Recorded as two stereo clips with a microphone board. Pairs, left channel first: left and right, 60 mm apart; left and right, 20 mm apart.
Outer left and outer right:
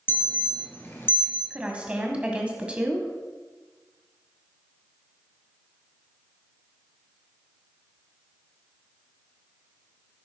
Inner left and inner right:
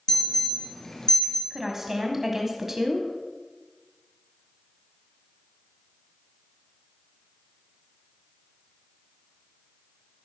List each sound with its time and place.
0.1 s an alarm: 35° left (ahead or behind), 2.5 m
1.5 s a woman speaking: 20° right (ahead or behind), 1.4 m